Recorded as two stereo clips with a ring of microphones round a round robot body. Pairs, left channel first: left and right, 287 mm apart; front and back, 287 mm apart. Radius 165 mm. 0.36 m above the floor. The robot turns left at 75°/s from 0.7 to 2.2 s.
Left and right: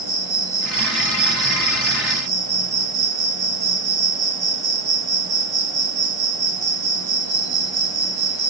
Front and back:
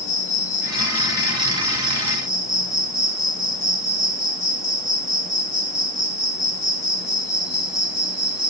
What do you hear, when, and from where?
0.0 s an insect: 25° left, 2.0 m; by 8.5 s 90° right, 2.0 m